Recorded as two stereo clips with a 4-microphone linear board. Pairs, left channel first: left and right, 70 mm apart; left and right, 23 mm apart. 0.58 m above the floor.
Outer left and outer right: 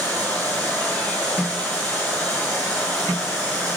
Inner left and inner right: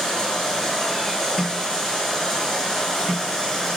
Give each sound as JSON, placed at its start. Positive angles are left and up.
{"t": 0.0, "sound": "running water", "side_deg": 15, "distance_m": 5.5}